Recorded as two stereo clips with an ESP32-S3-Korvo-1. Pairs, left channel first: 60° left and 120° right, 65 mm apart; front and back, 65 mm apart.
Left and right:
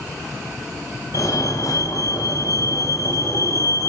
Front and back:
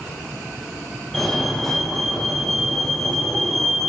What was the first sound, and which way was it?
A fire alarm, 85° left.